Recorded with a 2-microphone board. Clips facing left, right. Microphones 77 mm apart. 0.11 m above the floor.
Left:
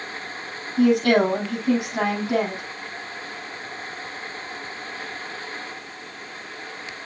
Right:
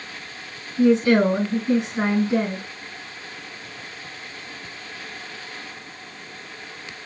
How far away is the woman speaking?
About 5 m.